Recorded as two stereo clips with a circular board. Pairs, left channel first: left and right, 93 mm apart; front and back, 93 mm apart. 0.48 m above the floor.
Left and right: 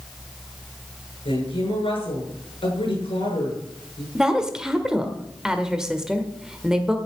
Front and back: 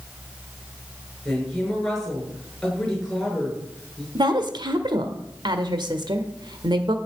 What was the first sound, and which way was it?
A woman speaking, 85° left.